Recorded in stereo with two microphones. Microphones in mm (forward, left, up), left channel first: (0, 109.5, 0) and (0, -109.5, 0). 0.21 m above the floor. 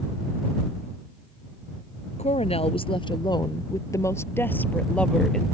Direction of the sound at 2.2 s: 35° left (ahead or behind).